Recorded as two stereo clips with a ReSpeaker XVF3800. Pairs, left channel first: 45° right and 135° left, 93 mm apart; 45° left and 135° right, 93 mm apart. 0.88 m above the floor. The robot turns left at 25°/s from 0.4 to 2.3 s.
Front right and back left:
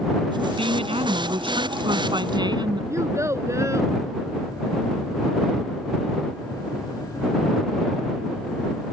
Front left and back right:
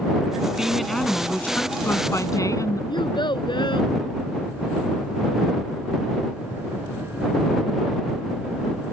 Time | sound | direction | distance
0.6 | a woman speaking | 140° left | ?
2.9 | a child speaking | 75° left | ?